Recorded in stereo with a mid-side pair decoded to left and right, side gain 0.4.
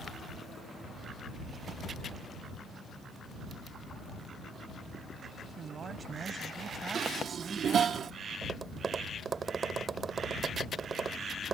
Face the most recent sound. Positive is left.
turn(degrees=-40)